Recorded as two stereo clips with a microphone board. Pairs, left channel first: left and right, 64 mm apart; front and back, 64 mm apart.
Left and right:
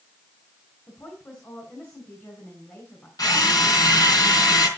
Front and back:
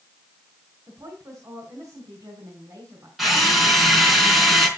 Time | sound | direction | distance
0.9 | a woman speaking | 145° left | 4.5 m
3.2 | a drill | 95° left | 4 m